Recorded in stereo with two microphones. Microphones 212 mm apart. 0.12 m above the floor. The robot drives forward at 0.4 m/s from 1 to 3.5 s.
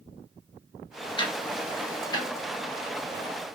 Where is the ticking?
25° left (ahead or behind), 1.1 m; by 2.3 s 20° left (ahead or behind), 1.5 m.